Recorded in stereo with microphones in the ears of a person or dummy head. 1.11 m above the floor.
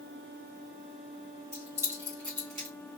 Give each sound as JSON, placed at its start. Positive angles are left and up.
{"t": 1.5, "sound": "keys jangling", "side_deg": -15, "distance_m": 2.5}